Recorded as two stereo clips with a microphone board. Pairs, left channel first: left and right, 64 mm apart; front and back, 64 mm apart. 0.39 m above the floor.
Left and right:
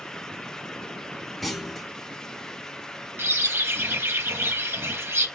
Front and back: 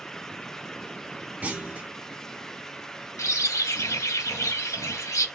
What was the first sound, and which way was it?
A clunk, straight behind.